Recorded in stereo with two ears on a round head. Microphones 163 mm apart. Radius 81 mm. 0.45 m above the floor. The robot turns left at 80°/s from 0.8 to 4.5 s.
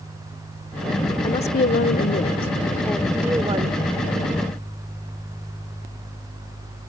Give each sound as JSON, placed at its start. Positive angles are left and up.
{"t": 1.2, "sound": "a woman speaking", "azimuth_deg": 140}